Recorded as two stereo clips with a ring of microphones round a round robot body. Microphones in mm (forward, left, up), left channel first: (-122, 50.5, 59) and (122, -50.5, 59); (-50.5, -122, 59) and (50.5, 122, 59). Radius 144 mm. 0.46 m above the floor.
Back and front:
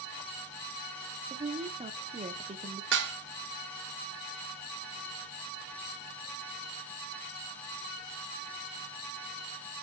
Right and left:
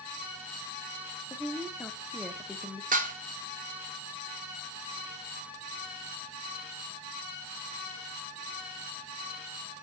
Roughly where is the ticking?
I don't hear ticking.